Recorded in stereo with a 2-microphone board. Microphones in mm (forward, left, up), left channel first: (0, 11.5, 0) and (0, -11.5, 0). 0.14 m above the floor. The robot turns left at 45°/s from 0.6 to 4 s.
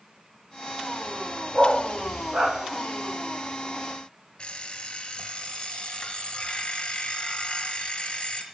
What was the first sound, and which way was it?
A dog barking, 35° right (ahead or behind).